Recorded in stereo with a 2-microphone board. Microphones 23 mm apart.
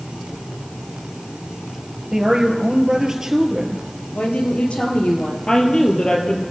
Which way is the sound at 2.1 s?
25° right (ahead or behind).